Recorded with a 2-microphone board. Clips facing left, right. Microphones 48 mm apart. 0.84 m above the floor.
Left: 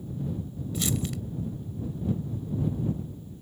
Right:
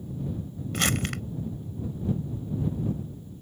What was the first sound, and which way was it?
Crumpling, 60° right (ahead or behind).